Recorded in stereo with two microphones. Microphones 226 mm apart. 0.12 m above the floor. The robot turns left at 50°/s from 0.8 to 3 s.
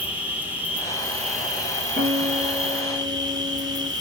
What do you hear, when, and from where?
0.0 s an insect: 10° right, 0.9 m; by 4.0 s 120° right, 0.9 m
2.0 s a guitar: 70° right, 1.8 m; by 3.9 s 120° right, 1.8 m